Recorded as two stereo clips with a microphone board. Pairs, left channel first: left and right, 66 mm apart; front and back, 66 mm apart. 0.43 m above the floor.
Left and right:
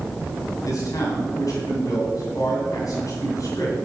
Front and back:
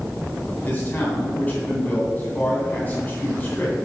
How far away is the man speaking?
About 2.5 m.